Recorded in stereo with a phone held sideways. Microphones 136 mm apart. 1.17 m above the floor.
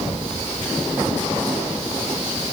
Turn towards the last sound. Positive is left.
No sound to turn to.